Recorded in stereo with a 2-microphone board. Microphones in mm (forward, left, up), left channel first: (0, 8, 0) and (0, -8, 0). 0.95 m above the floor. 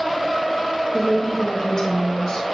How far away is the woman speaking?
About 1.1 m.